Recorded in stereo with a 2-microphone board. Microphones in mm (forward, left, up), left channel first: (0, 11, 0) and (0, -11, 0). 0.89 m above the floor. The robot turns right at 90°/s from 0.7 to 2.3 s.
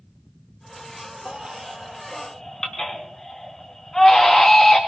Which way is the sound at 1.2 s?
65° right (ahead or behind).